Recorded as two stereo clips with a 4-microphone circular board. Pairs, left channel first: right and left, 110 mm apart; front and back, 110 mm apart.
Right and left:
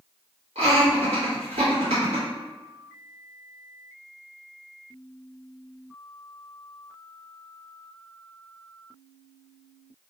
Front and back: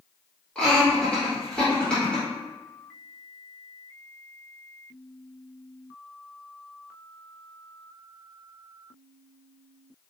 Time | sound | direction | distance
0.6 | laughter | 80° left | 1.6 m